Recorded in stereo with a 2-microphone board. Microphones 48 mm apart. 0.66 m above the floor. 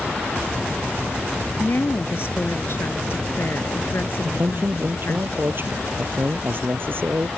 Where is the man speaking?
50° right (ahead or behind).